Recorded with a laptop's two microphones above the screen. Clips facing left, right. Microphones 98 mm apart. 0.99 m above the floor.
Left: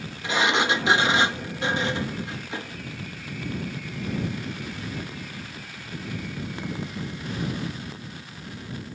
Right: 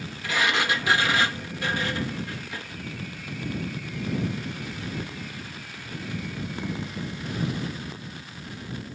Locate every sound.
0.2 s a sliding door: 25° left (ahead or behind)